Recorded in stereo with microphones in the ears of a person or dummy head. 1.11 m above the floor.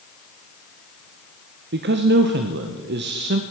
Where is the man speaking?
45° right (ahead or behind), 0.6 m.